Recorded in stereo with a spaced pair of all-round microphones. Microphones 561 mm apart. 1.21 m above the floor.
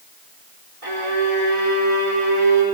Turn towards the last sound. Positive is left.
turn(degrees=-80)